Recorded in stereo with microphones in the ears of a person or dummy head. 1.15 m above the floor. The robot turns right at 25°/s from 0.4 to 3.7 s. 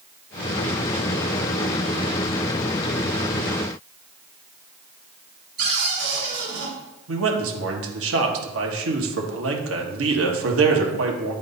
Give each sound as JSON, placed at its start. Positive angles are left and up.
{"t": 5.6, "sound": "a cupboard door", "side_deg": -80, "distance_m": 3.0}
{"t": 7.1, "sound": "a man speaking", "side_deg": -75, "distance_m": 1.4}